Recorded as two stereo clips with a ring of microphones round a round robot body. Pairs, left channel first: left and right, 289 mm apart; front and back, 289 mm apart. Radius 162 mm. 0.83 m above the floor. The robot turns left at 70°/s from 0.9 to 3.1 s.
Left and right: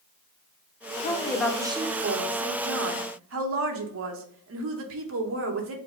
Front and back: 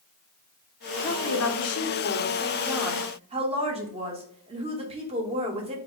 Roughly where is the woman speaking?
Ahead left.